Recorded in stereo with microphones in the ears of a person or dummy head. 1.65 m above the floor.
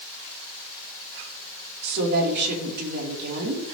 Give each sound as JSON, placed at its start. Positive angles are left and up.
{"t": 1.8, "sound": "a woman speaking", "side_deg": -55, "distance_m": 4.0}